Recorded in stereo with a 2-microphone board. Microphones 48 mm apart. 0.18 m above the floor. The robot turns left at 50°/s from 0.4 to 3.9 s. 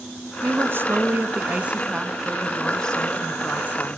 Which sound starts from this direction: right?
A woman speaking, at 0.4 s.